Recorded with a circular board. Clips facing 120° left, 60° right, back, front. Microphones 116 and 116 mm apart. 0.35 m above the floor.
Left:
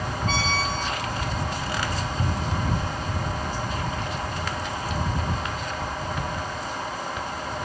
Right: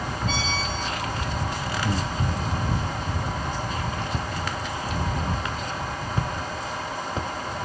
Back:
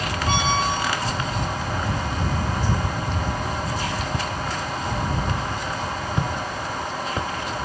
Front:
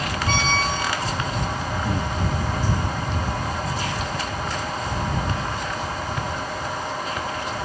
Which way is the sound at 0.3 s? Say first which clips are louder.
Left 4 dB, back 2 dB; 105° left.